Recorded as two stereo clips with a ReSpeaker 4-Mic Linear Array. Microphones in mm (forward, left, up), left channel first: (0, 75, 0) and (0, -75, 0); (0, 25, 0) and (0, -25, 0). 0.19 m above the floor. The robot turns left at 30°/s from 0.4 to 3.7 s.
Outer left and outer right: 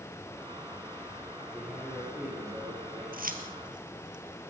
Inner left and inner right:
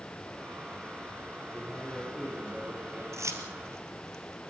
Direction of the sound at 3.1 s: 75° right (ahead or behind).